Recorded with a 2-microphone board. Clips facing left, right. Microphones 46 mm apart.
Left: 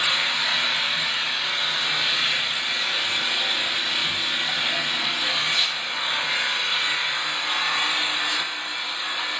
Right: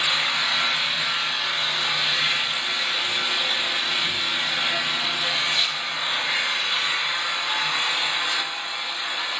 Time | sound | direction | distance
0.0 | an engine running | centre (ahead or behind) | 2.5 m